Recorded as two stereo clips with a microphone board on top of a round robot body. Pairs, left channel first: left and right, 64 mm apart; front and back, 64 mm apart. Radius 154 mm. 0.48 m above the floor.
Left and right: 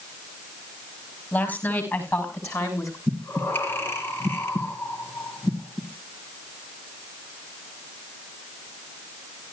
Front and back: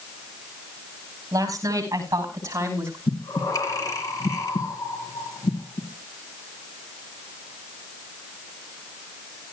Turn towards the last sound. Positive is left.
turn(degrees=35)